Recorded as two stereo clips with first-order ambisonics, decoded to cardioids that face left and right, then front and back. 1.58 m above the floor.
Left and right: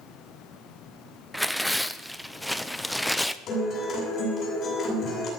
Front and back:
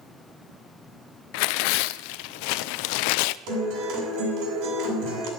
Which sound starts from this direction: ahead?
Tearing paper, at 1.3 s.